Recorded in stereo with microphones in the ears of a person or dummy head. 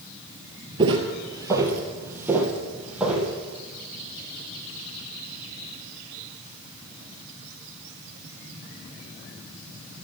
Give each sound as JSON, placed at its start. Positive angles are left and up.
{"t": 0.8, "sound": "footsteps", "side_deg": -20, "distance_m": 1.9}